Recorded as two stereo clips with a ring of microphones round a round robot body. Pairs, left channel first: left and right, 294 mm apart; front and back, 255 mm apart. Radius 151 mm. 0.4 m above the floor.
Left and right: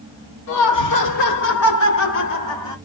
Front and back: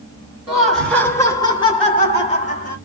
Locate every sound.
0.5 s laughter: 100° left, 1.6 m; by 2.8 s 30° left, 1.6 m